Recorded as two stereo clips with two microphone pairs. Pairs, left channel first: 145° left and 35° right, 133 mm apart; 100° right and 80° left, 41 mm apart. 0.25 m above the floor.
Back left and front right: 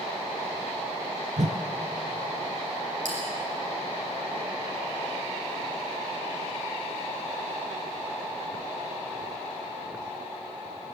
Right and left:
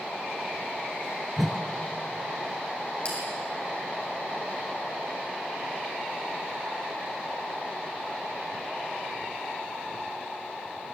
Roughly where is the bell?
Ahead right.